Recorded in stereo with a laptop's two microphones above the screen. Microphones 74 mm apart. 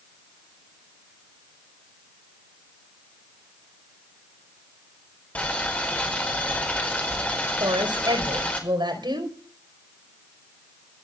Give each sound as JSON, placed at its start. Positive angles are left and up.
{"t": 5.3, "sound": "boiling", "side_deg": 20, "distance_m": 4.5}
{"t": 7.6, "sound": "a woman speaking", "side_deg": -85, "distance_m": 4.5}